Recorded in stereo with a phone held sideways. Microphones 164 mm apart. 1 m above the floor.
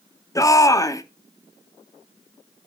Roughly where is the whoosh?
No whoosh in this recording.